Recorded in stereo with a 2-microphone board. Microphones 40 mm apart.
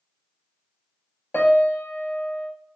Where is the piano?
50° left (ahead or behind), 0.7 m.